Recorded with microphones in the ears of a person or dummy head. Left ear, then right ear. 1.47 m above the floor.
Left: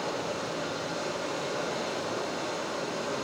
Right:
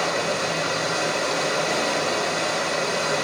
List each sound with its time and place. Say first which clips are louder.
0.0 s running water: right 9 dB; 75° right (ahead or behind), 4 m